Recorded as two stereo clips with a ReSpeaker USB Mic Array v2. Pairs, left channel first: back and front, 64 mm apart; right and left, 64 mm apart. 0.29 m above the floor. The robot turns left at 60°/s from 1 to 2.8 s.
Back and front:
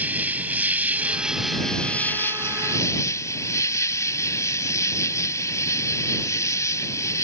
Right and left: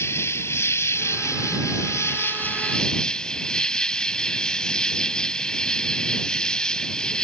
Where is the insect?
60° right; by 7.2 s 165° right.